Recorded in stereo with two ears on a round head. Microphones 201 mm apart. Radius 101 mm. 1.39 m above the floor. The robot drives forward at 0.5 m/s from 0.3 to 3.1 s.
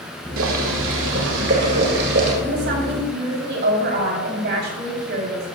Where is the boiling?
70° right (ahead or behind), 2.5 m; by 2.3 s 50° right (ahead or behind), 3 m.